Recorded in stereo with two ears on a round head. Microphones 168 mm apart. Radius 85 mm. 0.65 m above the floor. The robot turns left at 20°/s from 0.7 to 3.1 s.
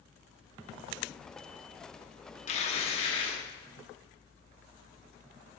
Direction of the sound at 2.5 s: 35° left (ahead or behind).